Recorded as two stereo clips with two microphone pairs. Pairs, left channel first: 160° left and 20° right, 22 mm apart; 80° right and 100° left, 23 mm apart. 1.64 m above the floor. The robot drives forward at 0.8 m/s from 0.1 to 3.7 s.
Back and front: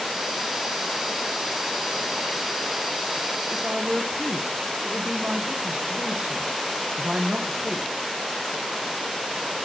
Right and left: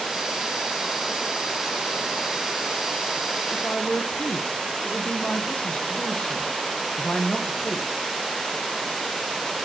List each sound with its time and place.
3.5 s a woman speaking: 60° right, 1.6 m; by 7.9 s 65° right, 1.6 m